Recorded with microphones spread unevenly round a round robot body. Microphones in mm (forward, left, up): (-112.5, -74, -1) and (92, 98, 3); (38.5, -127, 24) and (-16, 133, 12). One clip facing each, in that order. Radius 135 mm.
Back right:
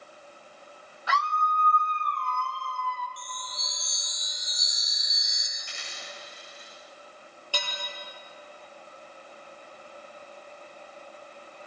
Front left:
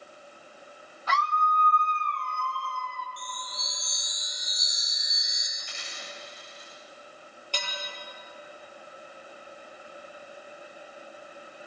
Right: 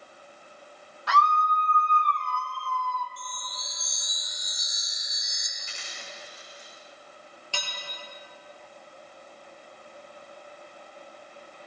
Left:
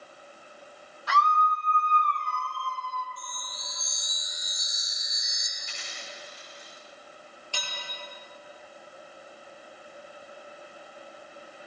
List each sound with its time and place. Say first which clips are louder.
1.1 s a scream: front left 1 dB, right 1 dB; 65° right, 2 m; by 3.1 s 50° right, 3 m
3.2 s a chime: front left 1 dB, right 1 dB; 125° right, 4.5 m
5.6 s a dropped coin: front left 1 dB, even; 105° right, 8 m
7.5 s dishes clattering: back right 2 dB, right 2 dB; 55° right, 5.5 m